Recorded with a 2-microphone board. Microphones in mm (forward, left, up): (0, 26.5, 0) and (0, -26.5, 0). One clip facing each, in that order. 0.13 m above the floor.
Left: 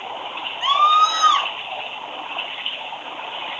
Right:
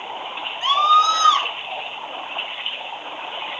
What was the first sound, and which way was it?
A scream, 15° left (ahead or behind).